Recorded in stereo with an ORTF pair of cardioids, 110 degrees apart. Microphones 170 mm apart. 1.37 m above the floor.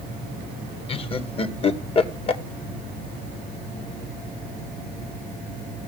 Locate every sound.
0.9 s laughter: 35° left, 2 m